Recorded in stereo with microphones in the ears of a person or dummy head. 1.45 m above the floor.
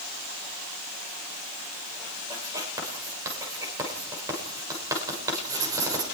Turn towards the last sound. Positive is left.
turn(degrees=-20)  # may be behind; listen again after turning